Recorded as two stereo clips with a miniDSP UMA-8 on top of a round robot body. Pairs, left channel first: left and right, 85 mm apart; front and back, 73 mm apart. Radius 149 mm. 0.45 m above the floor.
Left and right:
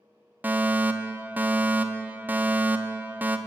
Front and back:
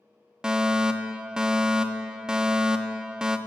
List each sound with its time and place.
0.4 s a fire alarm: 115° right, 1.7 m